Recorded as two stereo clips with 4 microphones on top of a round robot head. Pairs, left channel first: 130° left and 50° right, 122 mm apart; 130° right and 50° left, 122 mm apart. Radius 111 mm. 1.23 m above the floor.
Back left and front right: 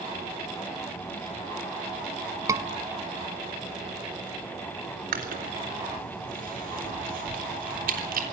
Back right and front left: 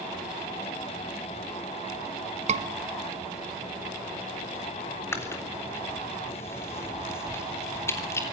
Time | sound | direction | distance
2.5 | a scream | 15° left | 1.8 m
5.1 | chewing | 60° right | 3.5 m